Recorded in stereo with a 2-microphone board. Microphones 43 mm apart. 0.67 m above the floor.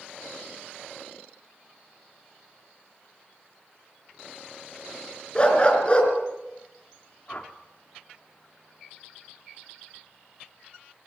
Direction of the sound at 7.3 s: 35° left (ahead or behind).